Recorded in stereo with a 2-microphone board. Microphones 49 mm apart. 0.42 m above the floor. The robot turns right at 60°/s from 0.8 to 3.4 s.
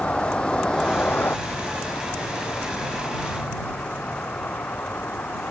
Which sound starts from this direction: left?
A vehicle, at 0.0 s.